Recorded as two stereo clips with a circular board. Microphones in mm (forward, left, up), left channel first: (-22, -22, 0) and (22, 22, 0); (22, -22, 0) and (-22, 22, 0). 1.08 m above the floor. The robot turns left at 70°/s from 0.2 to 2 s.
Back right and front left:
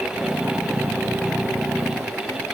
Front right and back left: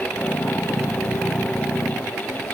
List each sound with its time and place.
Only background noise.